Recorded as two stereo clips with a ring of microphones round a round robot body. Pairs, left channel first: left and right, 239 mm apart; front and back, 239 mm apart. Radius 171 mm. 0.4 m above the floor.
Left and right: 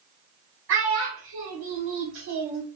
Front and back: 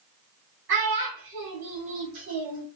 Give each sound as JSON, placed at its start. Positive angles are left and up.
{"t": 0.7, "sound": "a child speaking", "azimuth_deg": -135, "distance_m": 0.9}